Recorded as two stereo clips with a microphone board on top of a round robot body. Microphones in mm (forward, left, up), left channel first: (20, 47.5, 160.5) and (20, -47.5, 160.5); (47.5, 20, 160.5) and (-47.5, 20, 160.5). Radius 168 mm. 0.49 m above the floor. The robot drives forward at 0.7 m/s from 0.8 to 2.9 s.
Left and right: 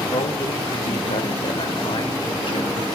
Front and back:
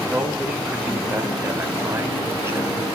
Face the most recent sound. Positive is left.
turn(degrees=120)